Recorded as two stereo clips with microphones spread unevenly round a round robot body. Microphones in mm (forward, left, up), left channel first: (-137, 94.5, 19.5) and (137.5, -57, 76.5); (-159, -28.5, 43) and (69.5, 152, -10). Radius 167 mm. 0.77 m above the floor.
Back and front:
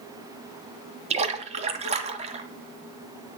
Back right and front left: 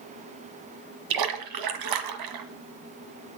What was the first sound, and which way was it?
A splash, 40° left.